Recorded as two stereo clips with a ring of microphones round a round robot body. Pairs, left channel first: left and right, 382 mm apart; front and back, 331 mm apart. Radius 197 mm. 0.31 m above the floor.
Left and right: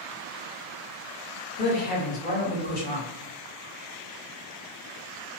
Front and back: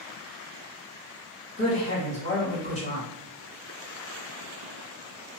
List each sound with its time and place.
1.6 s a woman speaking: 50° left, 1.6 m